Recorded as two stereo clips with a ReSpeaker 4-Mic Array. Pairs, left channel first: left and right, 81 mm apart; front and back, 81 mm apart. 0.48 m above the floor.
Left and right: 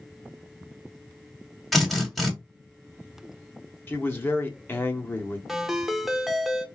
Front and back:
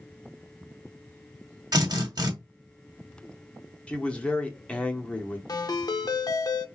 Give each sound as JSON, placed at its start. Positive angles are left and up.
{"t": 1.7, "sound": "a drill", "azimuth_deg": 180, "distance_m": 1.5}
{"t": 3.9, "sound": "a man speaking", "azimuth_deg": 60, "distance_m": 0.8}
{"t": 5.5, "sound": "a ringtone", "azimuth_deg": -5, "distance_m": 0.5}